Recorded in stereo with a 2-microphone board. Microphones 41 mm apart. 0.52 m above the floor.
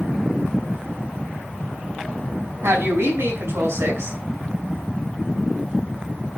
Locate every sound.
2.6 s a woman speaking: 75° right (ahead or behind), 5 m